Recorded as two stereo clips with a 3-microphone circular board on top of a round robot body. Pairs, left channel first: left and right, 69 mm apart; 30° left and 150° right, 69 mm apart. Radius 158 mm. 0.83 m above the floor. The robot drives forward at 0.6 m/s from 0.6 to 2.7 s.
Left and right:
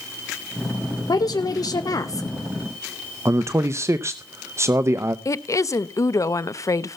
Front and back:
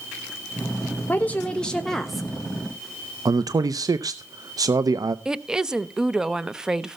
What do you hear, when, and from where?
1.1 s a woman speaking: 90° left, 1.2 m; by 2.3 s 125° left, 1.4 m
3.2 s a man speaking: 135° right, 0.7 m
5.2 s a woman speaking: 130° left, 0.8 m